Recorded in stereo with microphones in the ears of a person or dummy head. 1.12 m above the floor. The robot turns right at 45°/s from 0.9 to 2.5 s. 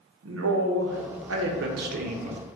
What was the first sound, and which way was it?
A man speaking, 100° right.